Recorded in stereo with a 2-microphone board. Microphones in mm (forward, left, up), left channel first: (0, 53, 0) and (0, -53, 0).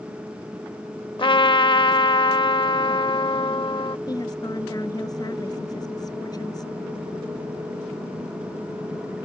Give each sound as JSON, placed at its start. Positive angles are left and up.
{"t": 1.2, "sound": "a trumpet", "side_deg": 55}
{"t": 4.1, "sound": "a woman speaking", "side_deg": 40}